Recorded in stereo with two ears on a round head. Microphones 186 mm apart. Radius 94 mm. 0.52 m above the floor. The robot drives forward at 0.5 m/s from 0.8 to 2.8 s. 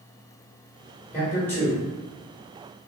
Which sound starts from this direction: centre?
A man speaking, at 1.1 s.